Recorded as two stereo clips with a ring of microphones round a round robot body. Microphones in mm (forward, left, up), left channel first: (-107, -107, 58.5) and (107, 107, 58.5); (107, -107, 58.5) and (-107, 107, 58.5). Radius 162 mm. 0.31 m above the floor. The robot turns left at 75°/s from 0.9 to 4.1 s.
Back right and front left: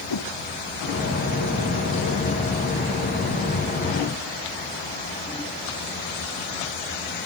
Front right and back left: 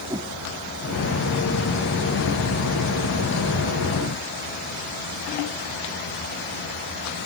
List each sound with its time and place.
0.1 s a whoosh: 150° right